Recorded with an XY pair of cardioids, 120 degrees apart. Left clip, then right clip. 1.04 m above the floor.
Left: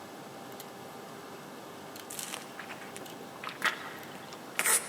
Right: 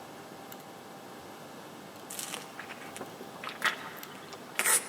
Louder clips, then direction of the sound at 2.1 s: Right 2 dB; 5° right.